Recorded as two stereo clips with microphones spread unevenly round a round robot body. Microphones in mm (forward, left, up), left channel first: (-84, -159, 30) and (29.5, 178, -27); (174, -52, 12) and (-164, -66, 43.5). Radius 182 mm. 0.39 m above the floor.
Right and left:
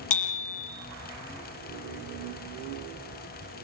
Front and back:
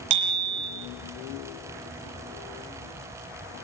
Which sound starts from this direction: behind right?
A bicycle bell, at 0.1 s.